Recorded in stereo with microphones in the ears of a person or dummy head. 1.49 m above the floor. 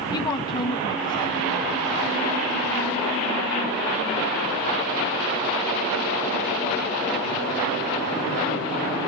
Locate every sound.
0.1 s a woman speaking: 25° left (ahead or behind), 1.8 m